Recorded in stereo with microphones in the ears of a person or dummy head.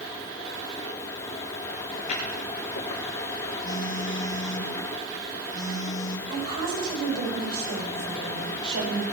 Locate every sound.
2.0 s footsteps: 50° left (ahead or behind), 4 m; by 3.5 s 65° left (ahead or behind), 4 m
3.6 s a phone buzzing: 25° left (ahead or behind), 1.7 m
6.3 s a woman speaking: 60° right (ahead or behind), 6 m